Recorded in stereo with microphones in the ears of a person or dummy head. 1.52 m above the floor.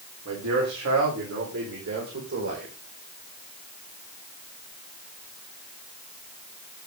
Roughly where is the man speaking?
Right.